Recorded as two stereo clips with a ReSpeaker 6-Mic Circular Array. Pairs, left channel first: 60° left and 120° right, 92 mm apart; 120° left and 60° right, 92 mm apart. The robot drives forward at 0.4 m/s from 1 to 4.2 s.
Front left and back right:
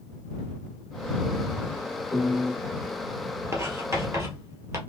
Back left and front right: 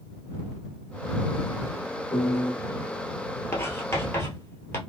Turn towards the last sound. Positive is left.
turn(degrees=180)